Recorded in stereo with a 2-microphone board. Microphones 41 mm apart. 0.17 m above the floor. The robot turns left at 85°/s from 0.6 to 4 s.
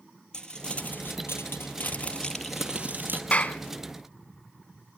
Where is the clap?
30° left (ahead or behind), 0.9 m.